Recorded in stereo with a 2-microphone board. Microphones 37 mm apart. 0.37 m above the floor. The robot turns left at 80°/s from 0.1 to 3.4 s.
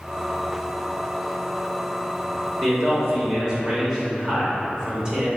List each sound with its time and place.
2.6 s a man speaking: 20° right (ahead or behind), 0.8 m; by 5.3 s 15° right (ahead or behind), 0.8 m